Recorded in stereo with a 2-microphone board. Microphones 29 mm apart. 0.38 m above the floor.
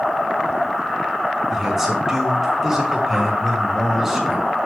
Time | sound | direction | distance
1.5 | a man speaking | 10° right (ahead or behind) | 4 m